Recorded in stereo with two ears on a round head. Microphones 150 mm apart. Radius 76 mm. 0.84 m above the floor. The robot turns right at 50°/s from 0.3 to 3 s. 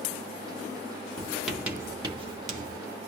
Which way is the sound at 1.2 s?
15° left (ahead or behind).